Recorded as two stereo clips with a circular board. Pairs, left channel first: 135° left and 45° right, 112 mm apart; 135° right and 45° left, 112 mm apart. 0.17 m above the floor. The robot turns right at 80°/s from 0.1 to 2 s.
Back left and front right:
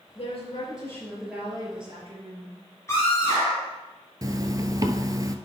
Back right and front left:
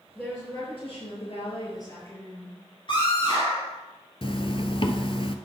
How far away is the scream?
About 3 m.